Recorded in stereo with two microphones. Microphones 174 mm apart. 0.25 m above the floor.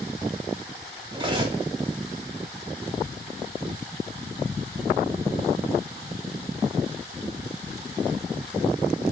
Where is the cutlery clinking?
30° right (ahead or behind), 0.6 m.